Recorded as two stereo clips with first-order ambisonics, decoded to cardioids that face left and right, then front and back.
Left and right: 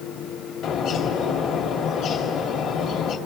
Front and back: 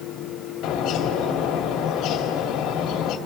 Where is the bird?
40° left, 2 m.